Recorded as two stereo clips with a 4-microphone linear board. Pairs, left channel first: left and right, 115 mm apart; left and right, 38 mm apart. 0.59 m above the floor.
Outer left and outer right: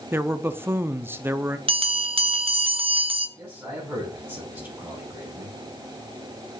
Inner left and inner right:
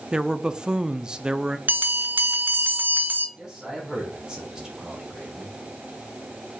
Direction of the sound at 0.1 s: 20° right (ahead or behind).